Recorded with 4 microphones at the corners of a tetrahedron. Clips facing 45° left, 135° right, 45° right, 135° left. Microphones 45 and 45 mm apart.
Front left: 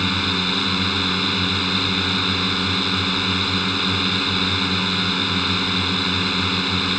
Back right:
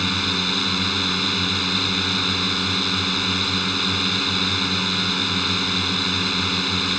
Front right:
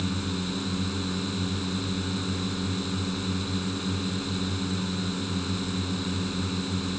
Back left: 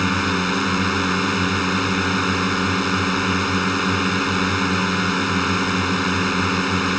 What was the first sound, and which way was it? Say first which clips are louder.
A drone: front left 1 dB, back left 11 dB; 125° left.